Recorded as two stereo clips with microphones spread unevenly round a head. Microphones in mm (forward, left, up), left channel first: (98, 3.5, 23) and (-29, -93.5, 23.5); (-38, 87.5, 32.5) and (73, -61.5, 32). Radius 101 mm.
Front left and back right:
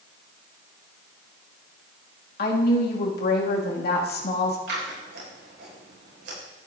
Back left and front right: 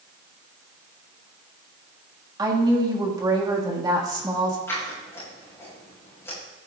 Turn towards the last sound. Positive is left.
turn(degrees=-155)